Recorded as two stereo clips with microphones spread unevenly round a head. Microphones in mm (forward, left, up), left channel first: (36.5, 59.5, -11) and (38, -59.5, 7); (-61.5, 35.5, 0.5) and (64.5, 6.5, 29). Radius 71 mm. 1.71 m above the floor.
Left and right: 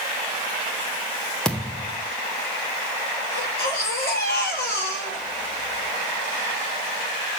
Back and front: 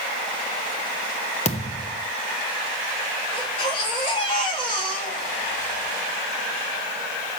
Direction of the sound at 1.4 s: 175° right.